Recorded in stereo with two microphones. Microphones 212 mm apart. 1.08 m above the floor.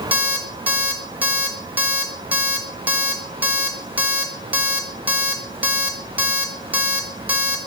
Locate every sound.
0.1 s an alarm clock: 5° right (ahead or behind), 1.3 m